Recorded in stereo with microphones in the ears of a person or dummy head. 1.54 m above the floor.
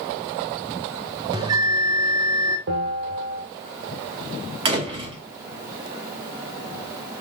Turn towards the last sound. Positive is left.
turn(degrees=-30)  # may be behind; listen again after turning